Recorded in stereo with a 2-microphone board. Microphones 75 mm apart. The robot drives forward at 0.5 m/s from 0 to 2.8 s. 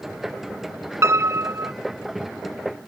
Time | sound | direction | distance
1.0 | a piano | 40° right (ahead or behind) | ?